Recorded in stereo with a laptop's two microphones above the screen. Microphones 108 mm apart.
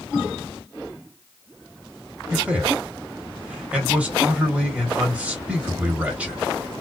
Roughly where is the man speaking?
Centre.